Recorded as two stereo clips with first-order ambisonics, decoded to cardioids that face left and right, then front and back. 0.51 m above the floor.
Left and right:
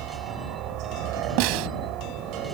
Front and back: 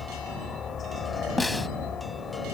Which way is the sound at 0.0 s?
65° right.